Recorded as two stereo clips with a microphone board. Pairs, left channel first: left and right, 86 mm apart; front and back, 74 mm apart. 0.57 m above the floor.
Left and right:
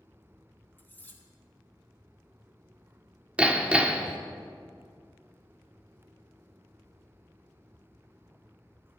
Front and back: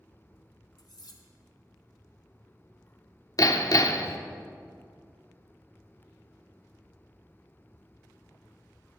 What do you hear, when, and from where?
0.8 s cutlery clinking: 25° left, 1.3 m
3.4 s hammering: 15° right, 0.7 m